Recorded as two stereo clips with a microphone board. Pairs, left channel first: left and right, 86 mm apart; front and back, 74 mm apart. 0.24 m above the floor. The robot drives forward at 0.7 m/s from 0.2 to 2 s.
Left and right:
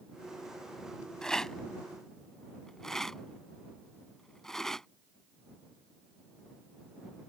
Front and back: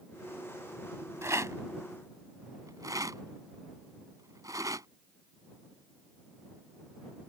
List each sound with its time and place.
1.2 s a rattle: 170° left; by 4.9 s 175° left